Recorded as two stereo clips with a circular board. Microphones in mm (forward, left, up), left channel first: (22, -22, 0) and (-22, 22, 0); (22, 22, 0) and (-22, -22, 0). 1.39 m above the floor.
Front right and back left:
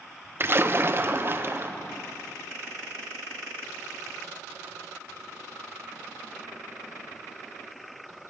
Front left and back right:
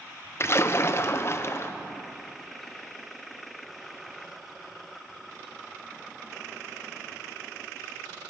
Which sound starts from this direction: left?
A splash, at 0.4 s.